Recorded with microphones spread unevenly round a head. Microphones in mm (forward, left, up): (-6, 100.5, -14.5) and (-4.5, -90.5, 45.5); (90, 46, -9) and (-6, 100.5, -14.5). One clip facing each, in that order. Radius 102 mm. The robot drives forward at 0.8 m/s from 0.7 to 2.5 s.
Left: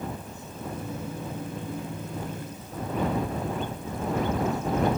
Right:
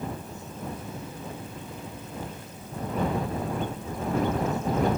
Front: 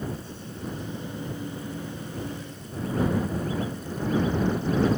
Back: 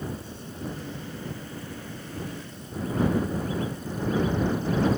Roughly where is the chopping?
No chopping in this recording.